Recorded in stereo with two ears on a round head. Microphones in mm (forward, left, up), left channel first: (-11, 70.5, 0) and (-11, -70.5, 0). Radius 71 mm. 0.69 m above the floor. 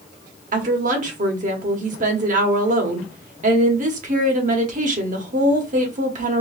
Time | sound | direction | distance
0.5 | a woman speaking | 50° right (ahead or behind) | 1.2 m